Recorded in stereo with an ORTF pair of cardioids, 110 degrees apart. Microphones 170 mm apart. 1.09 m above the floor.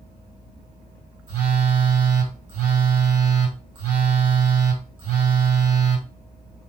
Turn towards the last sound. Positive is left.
turn(degrees=-60)